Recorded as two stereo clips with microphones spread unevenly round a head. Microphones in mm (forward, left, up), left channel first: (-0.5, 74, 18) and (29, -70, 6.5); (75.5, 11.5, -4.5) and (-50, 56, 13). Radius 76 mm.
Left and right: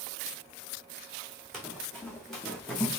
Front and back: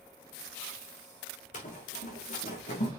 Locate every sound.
1.5 s running footsteps: 15° left, 5 m; by 2.9 s 20° left, 4 m